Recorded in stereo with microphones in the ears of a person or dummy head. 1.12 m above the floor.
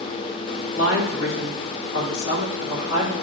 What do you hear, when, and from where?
0.7 s a woman speaking: 80° left, 3 m